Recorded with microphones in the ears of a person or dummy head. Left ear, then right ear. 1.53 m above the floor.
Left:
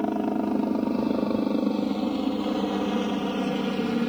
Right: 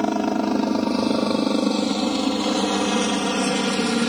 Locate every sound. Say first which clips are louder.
0.0 s a helicopter: right 5 dB; 65° right (ahead or behind)